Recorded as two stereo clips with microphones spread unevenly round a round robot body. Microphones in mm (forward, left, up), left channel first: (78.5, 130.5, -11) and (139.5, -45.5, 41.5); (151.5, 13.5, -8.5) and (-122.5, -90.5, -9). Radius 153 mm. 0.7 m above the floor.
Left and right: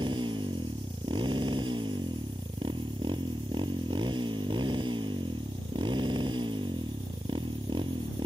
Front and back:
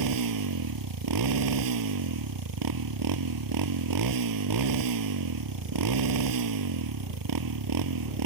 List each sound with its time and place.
0.0 s a motorcycle: 145° right